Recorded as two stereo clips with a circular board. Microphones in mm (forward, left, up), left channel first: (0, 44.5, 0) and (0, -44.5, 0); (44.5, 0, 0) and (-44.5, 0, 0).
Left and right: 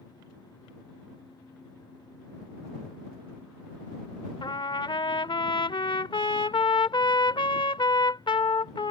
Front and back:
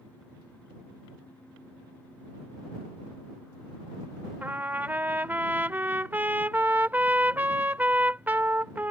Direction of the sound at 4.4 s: 110° left.